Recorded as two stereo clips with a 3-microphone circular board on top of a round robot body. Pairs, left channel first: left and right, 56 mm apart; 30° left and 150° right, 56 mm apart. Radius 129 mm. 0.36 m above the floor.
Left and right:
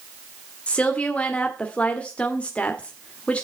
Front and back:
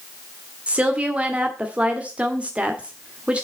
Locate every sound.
0.7 s a woman speaking: 150° left, 1.6 m